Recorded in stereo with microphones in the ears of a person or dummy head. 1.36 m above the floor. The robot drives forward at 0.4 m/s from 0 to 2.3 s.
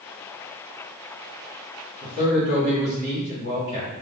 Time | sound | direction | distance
2.0 | a man speaking | 35° left (ahead or behind) | 2.5 m